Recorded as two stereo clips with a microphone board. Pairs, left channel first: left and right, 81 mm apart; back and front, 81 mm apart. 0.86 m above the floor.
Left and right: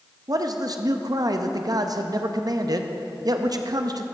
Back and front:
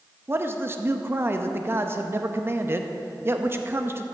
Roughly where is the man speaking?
Ahead right.